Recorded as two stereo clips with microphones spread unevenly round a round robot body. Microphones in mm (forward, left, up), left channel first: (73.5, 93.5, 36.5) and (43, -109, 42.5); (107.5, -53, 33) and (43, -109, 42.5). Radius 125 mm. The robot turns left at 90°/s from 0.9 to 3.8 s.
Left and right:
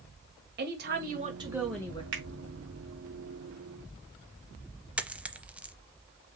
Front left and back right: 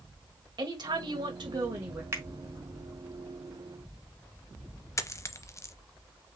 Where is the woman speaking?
120° right, 1.8 m; by 2.0 s 140° left, 1.8 m.